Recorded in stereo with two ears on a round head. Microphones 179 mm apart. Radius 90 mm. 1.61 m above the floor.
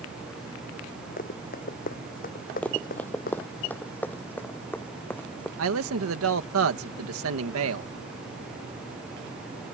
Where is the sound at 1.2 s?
50° left (ahead or behind).